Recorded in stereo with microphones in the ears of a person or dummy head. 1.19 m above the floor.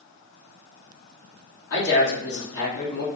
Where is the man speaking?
60° left (ahead or behind), 1.7 m.